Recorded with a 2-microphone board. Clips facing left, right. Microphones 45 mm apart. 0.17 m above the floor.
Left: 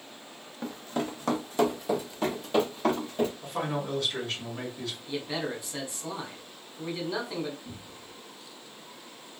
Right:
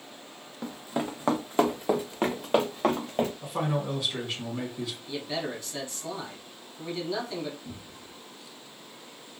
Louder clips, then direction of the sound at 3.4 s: Right 2 dB; 15° right (ahead or behind).